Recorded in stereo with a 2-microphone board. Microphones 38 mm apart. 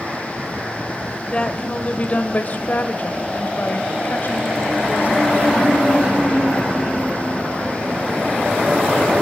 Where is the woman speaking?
25° left (ahead or behind), 1.7 m; by 6.8 s 55° left (ahead or behind), 4 m.